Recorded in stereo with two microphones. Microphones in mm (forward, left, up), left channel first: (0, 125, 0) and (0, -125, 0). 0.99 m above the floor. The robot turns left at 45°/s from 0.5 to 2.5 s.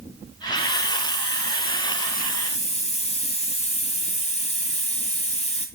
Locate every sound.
0.6 s a hiss: 115° left, 3 m; by 5.7 s 30° left, 3 m